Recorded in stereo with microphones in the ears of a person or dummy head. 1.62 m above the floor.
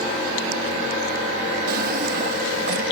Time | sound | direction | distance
1.7 | a drawer | 55° right (ahead or behind) | ?